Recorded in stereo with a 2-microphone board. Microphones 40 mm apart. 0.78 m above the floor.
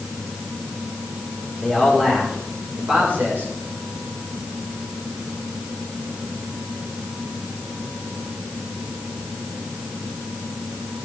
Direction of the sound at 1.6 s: 20° right (ahead or behind).